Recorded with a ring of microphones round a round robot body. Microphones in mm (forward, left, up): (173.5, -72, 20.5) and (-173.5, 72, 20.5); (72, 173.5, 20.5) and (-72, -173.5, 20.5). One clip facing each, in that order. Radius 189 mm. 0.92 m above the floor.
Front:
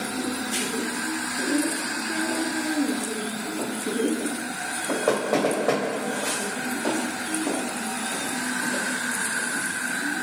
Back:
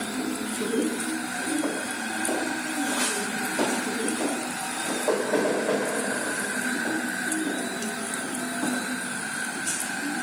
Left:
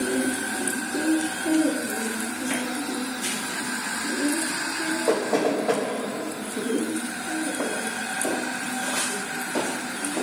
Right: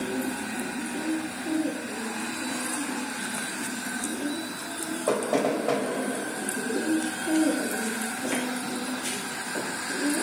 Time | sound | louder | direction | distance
5.1 | knocking | even, left 2 dB | 55° right | 4.5 m